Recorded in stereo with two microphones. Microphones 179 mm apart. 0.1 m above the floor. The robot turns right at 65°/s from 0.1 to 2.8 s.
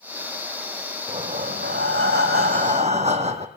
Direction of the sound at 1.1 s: 150° right.